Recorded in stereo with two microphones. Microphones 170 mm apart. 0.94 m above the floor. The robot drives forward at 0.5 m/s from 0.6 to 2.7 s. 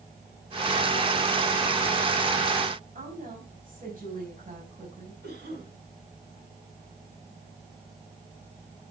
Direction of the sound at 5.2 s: 80° right.